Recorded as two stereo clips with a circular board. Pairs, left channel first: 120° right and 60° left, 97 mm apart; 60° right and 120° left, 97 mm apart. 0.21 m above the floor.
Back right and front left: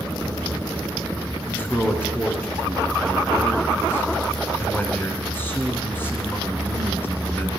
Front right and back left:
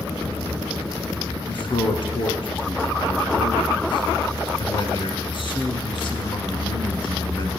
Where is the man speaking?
55° right, 2 m.